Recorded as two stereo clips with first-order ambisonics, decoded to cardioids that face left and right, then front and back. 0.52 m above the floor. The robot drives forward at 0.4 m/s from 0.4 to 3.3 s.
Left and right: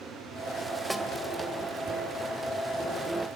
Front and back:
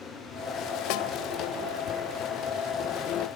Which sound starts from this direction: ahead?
A snare drum, at 0.9 s.